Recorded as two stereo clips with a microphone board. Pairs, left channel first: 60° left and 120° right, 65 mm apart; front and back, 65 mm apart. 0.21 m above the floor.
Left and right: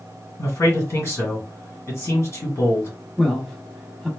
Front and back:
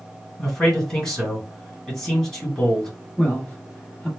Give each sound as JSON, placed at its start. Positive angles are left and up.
{"t": 0.4, "sound": "a man speaking", "azimuth_deg": 70, "distance_m": 2.0}
{"t": 3.2, "sound": "a man speaking", "azimuth_deg": -20, "distance_m": 1.0}